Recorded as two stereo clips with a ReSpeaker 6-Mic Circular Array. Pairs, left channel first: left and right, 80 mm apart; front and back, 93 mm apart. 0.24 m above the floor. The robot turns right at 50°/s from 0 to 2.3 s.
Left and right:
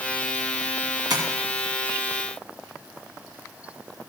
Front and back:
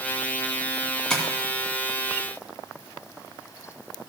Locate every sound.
1.1 s tapping: 80° right, 2 m; by 1.2 s 75° right, 2 m